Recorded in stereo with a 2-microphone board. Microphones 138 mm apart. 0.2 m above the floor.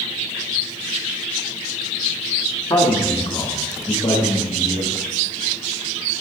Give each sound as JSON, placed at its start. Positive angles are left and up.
{"t": 2.7, "sound": "a man speaking", "side_deg": 30, "distance_m": 1.2}